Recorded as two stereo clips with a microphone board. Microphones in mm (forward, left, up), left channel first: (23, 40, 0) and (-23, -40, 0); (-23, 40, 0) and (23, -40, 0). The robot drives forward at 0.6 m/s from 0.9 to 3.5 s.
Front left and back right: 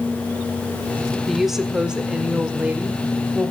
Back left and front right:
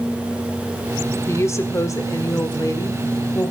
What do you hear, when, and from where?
1.3 s a woman speaking: 150° left, 1.2 m; by 3.5 s 170° left, 2 m